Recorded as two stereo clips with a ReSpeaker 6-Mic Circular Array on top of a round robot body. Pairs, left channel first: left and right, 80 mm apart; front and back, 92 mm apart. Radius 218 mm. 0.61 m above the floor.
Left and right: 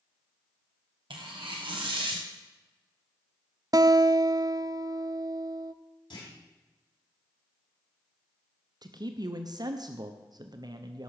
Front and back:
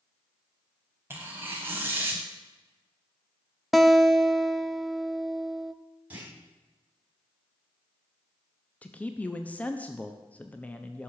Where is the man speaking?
70° right, 1.0 m.